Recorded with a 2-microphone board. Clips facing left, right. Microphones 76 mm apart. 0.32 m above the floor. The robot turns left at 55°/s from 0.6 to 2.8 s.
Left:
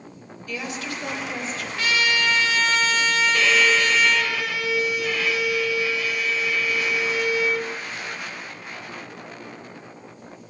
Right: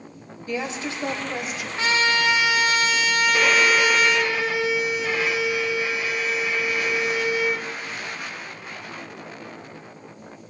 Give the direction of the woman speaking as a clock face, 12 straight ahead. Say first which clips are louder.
Right 3 dB; 3 o'clock.